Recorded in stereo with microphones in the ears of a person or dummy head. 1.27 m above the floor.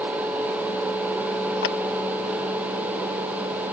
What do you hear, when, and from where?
1.6 s a clap: 70° left (ahead or behind)